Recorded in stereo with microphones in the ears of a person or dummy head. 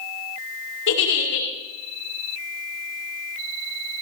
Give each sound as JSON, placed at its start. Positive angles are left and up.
{"t": 0.9, "sound": "a giggle", "side_deg": 65, "distance_m": 5.5}